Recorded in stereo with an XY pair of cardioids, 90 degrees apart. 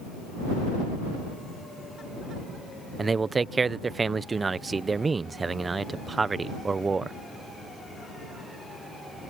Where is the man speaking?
35° right.